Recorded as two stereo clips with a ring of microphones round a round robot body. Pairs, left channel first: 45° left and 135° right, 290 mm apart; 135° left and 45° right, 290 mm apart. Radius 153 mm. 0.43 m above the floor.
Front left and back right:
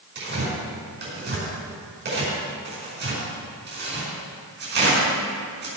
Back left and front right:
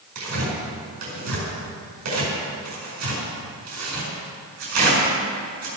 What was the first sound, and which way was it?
Tearing paper, 80° right.